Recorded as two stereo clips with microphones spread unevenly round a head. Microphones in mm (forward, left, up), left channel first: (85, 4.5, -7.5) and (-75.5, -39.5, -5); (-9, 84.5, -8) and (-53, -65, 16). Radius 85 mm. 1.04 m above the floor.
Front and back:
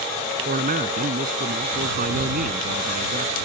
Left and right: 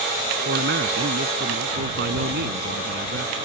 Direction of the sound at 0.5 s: 125° right.